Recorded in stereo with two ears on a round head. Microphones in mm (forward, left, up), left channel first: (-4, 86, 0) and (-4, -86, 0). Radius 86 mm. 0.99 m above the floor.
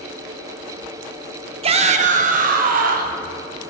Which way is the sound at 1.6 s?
30° right (ahead or behind).